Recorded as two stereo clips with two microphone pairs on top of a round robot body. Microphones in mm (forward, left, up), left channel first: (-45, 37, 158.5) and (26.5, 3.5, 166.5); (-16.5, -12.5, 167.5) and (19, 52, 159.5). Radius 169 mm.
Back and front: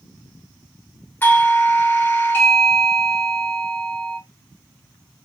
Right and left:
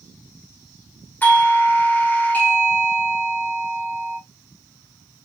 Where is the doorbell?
Straight behind, 1.2 m.